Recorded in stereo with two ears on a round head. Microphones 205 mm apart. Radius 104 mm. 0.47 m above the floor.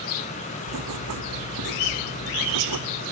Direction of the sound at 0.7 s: 85° right.